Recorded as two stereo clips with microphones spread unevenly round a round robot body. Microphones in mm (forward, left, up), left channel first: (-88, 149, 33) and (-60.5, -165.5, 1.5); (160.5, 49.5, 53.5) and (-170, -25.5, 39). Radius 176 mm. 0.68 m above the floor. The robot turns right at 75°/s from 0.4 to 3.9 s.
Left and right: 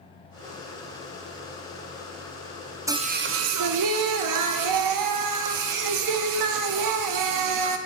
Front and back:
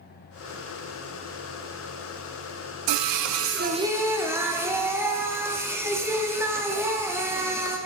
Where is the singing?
165° right, 0.5 m; by 7.8 s 85° right, 0.5 m.